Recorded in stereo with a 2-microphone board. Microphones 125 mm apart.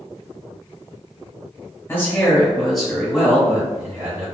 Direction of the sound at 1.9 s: 20° left (ahead or behind).